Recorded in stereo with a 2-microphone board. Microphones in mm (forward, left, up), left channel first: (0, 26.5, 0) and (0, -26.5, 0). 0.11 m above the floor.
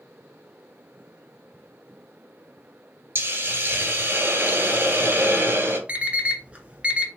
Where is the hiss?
35° right (ahead or behind), 1.2 m.